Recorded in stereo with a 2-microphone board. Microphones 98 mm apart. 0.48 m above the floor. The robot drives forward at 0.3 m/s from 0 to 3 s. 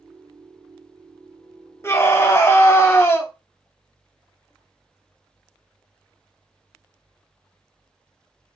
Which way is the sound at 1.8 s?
25° left (ahead or behind).